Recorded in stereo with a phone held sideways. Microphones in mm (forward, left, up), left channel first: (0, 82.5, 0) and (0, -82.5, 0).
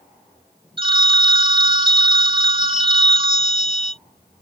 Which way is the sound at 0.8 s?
30° right (ahead or behind).